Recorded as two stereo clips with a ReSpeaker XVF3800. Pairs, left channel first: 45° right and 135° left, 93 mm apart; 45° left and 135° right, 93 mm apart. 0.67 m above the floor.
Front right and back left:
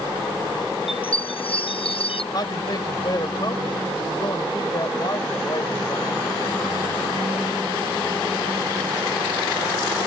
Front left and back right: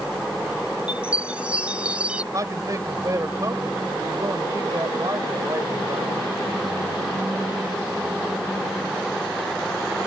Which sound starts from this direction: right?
A man speaking, at 2.3 s.